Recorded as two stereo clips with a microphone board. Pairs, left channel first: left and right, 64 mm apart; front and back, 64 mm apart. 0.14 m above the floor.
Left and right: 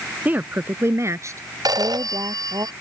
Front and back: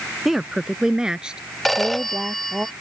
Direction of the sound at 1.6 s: 90° right.